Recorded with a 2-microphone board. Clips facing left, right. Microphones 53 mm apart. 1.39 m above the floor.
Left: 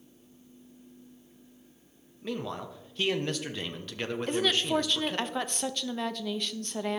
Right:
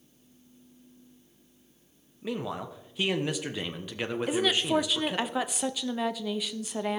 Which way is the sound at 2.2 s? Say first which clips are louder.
Right 2 dB; 10° right (ahead or behind).